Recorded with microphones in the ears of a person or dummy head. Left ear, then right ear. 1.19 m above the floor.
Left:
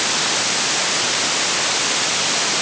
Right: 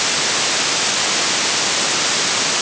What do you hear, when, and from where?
Only background noise.